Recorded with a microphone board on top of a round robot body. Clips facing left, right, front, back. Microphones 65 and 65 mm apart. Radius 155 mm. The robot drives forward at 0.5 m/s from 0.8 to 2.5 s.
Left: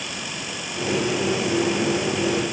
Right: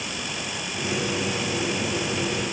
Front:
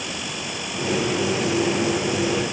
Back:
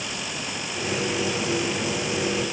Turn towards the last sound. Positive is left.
No sound to turn to.